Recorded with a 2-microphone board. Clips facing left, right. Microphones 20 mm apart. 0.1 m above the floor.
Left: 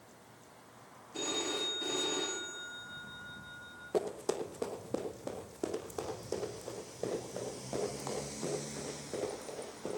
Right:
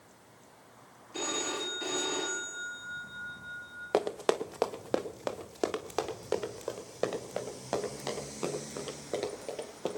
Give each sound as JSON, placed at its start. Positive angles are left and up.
{"t": 1.1, "sound": "a phone ringing", "side_deg": -40, "distance_m": 5.0}
{"t": 3.9, "sound": "running footsteps", "side_deg": -80, "distance_m": 1.1}